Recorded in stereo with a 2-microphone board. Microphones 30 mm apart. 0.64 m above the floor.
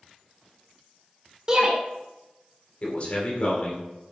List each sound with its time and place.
1.5 s a shout: 25° right (ahead or behind), 1.8 m
2.8 s a man speaking: 40° left (ahead or behind), 2.5 m